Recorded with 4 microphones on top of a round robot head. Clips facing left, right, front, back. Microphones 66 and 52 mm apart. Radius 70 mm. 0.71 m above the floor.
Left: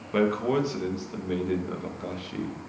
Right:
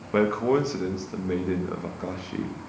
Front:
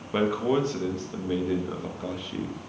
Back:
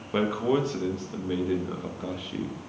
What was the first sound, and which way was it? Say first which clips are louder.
A man speaking: right 2 dB, front 1 dB; 95° right.